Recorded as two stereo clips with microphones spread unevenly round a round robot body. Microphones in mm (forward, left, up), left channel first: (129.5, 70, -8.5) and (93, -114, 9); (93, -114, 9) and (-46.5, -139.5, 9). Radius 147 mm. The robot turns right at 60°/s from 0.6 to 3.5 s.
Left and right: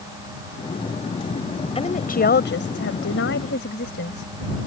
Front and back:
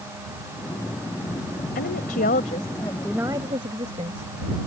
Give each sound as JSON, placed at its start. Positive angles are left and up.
{"t": 1.8, "sound": "a woman speaking", "azimuth_deg": 20}